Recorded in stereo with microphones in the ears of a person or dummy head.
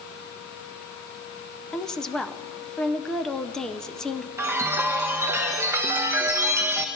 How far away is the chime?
About 0.9 m.